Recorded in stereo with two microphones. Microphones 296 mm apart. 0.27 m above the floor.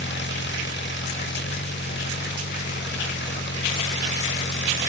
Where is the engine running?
40° left (ahead or behind).